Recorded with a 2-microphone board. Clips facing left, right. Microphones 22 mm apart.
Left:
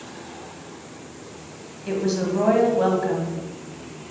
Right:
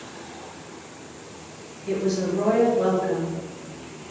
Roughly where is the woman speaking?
Left.